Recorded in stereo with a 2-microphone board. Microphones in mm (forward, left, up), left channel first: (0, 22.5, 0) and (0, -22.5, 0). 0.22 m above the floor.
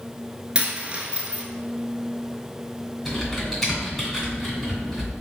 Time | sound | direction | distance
0.6 | a dropped coin | 30° right (ahead or behind) | 0.7 m
3.0 | typing on a keyboard | centre (ahead or behind) | 1.9 m